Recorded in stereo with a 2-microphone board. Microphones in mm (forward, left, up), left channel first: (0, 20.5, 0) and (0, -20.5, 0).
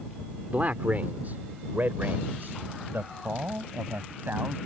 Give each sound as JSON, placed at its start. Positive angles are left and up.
{"t": 0.5, "sound": "a man speaking", "side_deg": -40}